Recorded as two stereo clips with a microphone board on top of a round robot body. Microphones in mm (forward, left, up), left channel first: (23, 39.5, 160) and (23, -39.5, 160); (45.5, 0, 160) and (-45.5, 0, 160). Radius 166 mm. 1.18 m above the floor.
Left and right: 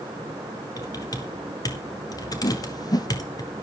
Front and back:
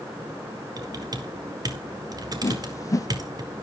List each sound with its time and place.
0.8 s typing on a keyboard: 135° left, 4 m
2.4 s a whoosh: 55° left, 1.7 m